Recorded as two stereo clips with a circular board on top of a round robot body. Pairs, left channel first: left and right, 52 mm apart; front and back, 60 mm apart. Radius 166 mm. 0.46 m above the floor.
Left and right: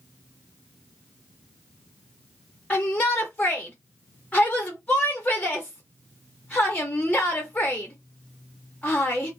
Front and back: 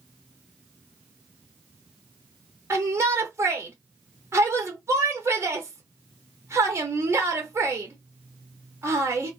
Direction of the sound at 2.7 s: 155° left.